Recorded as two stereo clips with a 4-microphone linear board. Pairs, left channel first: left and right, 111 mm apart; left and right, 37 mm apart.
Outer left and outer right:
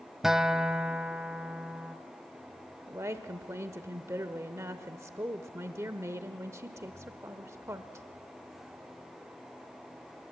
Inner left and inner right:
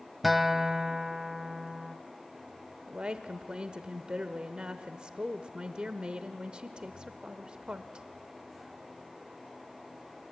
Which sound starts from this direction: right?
A woman speaking, at 2.9 s.